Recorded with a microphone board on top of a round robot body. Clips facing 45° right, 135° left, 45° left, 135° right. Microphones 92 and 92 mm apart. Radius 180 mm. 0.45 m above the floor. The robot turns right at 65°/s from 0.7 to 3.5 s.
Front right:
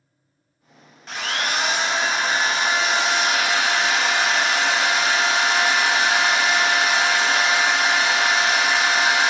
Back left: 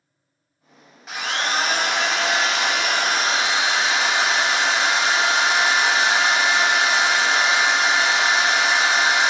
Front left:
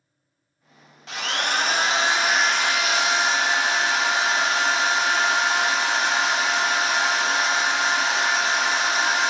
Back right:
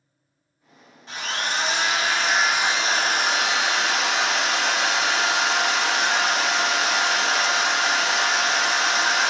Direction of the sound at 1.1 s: 50° left.